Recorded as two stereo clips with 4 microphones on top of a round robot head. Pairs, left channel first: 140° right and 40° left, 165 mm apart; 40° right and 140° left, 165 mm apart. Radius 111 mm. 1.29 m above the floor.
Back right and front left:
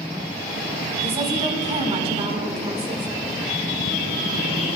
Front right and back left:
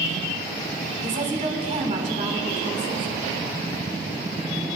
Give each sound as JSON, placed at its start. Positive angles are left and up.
{"t": 1.0, "sound": "a woman speaking", "azimuth_deg": 95, "distance_m": 2.5}